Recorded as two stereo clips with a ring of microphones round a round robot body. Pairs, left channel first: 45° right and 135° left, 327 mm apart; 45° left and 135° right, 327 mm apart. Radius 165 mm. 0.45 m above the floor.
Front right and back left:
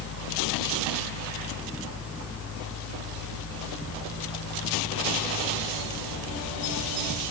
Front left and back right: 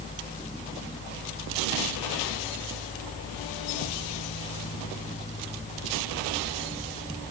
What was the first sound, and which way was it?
Only background noise.